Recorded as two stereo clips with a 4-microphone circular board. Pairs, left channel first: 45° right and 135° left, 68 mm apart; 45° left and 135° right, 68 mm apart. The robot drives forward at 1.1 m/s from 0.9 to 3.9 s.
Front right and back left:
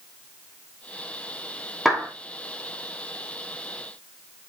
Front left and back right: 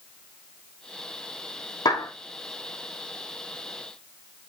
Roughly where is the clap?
Ahead left.